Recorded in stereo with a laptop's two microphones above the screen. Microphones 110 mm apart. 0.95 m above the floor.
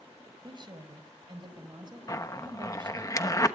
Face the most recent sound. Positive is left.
turn(degrees=30)  # may be behind; listen again after turning